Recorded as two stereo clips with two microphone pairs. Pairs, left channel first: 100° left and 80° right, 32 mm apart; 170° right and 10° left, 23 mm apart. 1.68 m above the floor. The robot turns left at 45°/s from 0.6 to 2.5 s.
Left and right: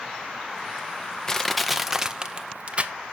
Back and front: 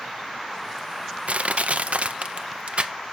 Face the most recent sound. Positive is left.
turn(degrees=-25)